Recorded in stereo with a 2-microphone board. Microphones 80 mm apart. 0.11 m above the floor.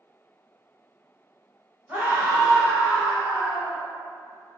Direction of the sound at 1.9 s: 25° right (ahead or behind).